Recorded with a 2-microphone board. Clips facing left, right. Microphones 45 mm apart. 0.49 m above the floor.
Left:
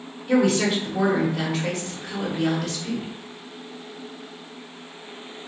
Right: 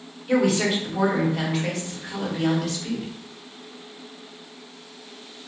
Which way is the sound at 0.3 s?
5° right (ahead or behind).